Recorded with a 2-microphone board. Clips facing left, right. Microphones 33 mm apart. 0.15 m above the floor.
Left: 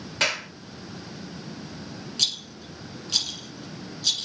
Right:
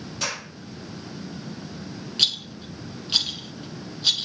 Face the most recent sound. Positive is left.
turn(degrees=-30)  # may be behind; listen again after turning